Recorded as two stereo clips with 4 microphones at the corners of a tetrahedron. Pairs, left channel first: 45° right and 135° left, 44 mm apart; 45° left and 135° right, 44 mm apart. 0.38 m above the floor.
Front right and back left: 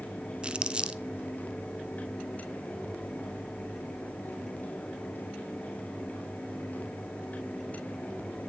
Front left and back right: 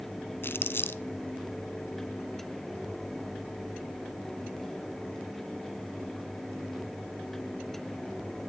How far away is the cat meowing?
I don't hear a cat meowing.